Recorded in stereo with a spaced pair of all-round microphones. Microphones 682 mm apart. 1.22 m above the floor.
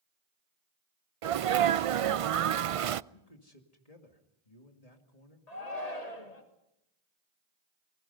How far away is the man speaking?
About 2.5 m.